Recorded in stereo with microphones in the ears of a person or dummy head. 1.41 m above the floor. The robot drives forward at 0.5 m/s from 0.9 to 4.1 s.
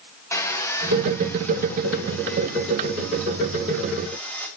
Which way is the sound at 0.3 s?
20° left (ahead or behind).